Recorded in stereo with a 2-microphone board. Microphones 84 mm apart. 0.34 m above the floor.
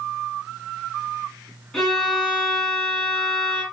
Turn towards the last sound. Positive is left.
turn(degrees=5)  # may be behind; listen again after turning